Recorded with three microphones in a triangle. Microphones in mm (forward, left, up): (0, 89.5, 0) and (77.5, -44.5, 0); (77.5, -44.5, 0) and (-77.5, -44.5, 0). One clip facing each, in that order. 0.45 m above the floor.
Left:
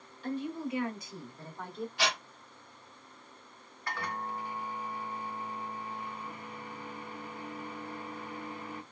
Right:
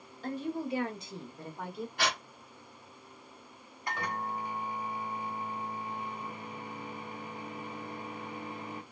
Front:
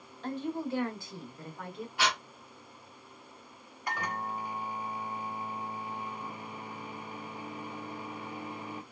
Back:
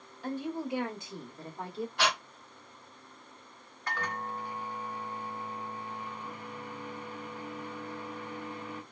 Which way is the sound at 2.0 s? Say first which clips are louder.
Even, even; 80° right.